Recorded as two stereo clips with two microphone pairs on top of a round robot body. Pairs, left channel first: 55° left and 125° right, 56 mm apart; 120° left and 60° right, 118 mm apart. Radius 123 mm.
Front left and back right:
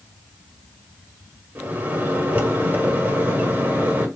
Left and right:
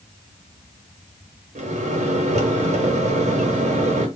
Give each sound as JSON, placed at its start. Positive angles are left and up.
{"t": 1.6, "sound": "a microwave", "azimuth_deg": -70, "distance_m": 1.9}